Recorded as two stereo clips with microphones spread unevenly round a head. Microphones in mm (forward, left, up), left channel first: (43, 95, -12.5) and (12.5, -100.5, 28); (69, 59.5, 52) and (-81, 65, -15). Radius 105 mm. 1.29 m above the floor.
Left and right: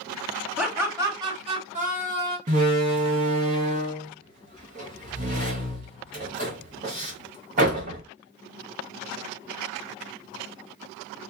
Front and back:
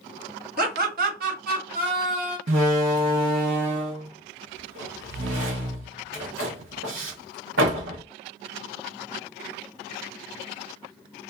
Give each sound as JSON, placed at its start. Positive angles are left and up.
{"t": 0.6, "sound": "laughter", "azimuth_deg": 170, "distance_m": 1.1}
{"t": 2.5, "sound": "a door slam", "azimuth_deg": -145, "distance_m": 0.7}